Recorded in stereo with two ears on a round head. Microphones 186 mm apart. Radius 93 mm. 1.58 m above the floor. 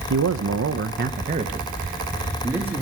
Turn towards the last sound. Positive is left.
turn(degrees=-10)  # may be behind; listen again after turning